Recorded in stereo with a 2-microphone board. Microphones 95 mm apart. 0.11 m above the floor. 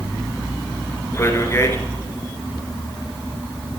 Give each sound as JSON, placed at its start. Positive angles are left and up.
{"t": 1.1, "sound": "a man speaking", "side_deg": 30, "distance_m": 1.9}